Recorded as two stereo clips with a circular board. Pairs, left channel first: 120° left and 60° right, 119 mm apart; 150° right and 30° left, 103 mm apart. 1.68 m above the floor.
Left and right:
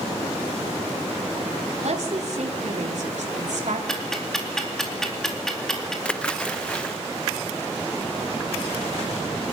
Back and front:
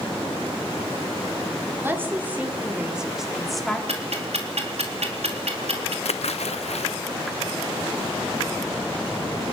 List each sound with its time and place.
1.8 s a woman speaking: 40° right, 4.5 m; by 3.8 s 65° right, 4 m
3.9 s ticking: 35° left, 4 m
6.0 s a splash: 160° right, 0.9 m